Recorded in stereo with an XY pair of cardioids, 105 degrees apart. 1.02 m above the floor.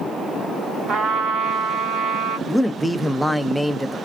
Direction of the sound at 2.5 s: 5° right.